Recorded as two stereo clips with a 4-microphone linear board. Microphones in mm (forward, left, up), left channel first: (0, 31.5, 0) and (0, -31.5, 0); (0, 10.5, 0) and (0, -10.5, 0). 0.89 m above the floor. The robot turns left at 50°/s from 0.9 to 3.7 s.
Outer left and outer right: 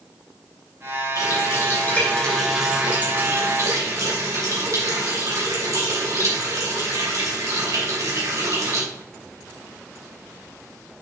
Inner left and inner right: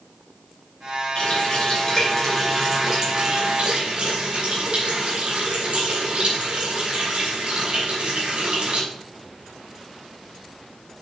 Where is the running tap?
65° left, 3 m; by 8.8 s 60° right, 3 m.